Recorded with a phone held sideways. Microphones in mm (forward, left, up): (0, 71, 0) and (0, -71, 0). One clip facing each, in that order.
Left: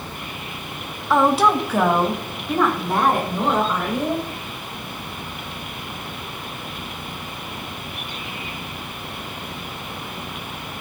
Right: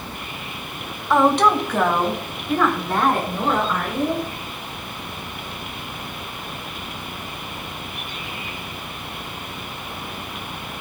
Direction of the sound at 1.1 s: Centre (ahead or behind).